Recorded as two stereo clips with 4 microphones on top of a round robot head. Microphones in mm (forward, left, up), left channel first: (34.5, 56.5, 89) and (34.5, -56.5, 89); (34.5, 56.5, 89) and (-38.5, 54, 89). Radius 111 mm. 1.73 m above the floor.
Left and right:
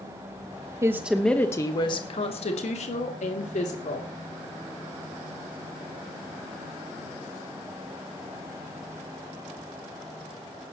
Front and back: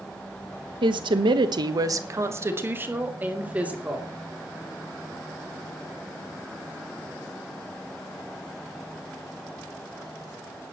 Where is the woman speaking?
160° right, 1.0 m; by 4.1 s 110° left, 3 m.